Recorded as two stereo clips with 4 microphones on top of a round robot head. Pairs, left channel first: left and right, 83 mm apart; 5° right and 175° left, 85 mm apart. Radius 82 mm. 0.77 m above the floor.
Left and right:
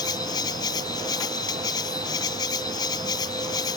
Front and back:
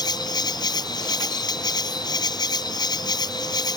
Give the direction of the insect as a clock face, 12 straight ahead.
11 o'clock.